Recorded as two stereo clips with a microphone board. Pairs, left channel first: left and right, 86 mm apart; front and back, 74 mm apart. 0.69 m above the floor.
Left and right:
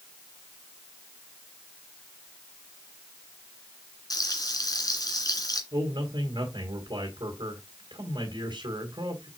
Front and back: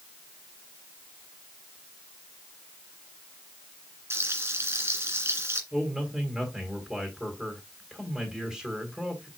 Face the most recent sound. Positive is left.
turn(degrees=-100)